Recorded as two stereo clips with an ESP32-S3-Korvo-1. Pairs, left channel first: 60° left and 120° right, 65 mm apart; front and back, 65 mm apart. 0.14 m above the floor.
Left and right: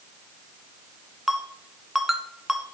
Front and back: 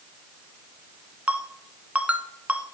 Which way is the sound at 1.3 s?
160° left.